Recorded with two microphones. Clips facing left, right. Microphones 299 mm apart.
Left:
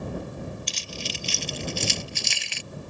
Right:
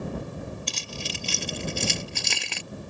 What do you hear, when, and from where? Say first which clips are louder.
0.7 s keys jangling: even; 60° right (ahead or behind); by 2.6 s 65° right (ahead or behind)